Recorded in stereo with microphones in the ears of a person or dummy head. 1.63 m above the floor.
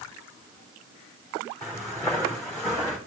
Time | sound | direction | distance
1.6 | footsteps | 20° left (ahead or behind) | 4.5 m